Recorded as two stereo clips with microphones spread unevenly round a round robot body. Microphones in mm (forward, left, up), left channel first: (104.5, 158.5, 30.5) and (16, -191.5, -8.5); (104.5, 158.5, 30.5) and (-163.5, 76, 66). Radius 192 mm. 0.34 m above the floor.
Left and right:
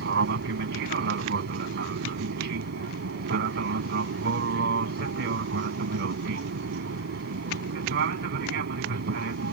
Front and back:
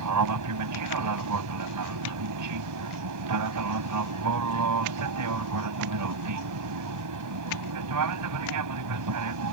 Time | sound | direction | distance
0.0 | an aircraft | 165° right | ?